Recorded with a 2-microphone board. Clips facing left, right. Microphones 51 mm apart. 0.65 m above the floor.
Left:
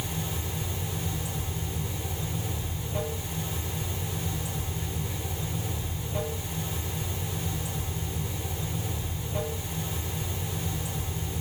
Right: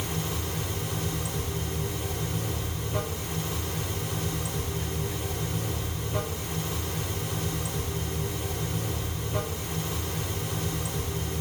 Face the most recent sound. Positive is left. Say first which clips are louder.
# right 2 dB
turn(degrees=-65)  # may be behind; listen again after turning